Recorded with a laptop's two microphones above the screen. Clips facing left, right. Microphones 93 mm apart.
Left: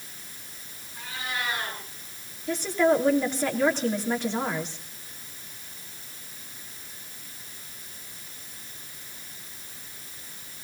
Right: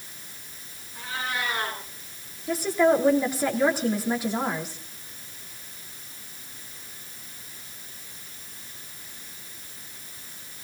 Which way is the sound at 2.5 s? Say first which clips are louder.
Right 1 dB; 10° right (ahead or behind).